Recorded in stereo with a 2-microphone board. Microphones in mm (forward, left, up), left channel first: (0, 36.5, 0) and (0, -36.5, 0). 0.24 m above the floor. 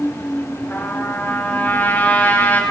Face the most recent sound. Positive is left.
turn(degrees=30)  # may be behind; listen again after turning